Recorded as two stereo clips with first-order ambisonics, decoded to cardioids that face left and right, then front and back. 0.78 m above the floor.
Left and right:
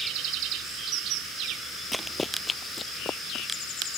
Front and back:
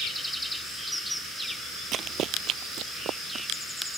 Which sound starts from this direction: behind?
Running footsteps, at 1.9 s.